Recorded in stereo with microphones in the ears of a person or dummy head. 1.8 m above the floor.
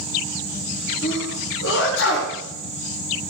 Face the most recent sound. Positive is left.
turn(degrees=75)  # may be behind; listen again after turning